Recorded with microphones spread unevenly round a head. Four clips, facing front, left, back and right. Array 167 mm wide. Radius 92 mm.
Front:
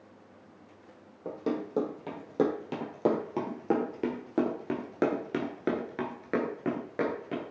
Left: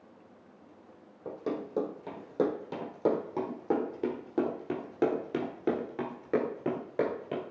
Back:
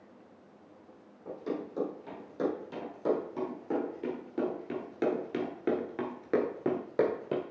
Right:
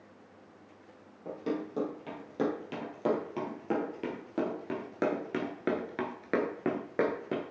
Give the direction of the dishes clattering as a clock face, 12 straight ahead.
I don't hear dishes clattering.